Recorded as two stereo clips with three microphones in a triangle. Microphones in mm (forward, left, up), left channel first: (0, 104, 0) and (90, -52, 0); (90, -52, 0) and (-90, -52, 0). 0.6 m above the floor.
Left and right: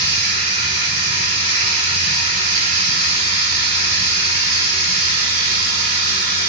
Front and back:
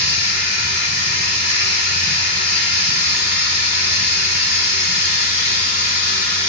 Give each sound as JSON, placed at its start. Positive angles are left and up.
{"t": 0.0, "sound": "running water", "azimuth_deg": 100, "distance_m": 1.1}